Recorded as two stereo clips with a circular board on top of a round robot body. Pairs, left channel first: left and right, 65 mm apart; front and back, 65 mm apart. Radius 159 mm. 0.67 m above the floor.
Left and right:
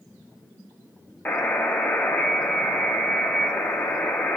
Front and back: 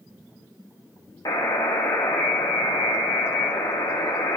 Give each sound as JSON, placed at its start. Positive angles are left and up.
{"t": 1.2, "sound": "a buzzer", "azimuth_deg": 25, "distance_m": 0.5}